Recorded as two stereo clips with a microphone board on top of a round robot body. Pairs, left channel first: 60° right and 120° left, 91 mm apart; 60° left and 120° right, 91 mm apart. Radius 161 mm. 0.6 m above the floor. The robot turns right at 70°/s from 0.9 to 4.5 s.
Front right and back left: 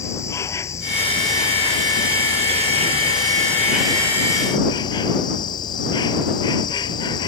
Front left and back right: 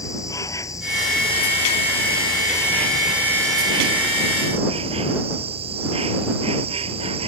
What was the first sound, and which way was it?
An insect, straight ahead.